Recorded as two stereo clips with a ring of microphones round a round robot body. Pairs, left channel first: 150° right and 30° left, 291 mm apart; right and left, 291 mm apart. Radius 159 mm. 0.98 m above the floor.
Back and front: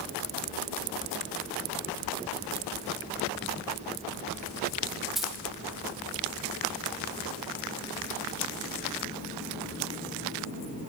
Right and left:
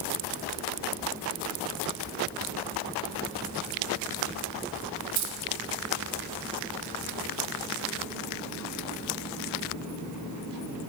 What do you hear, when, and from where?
5.2 s keys jangling: 120° left, 2.5 m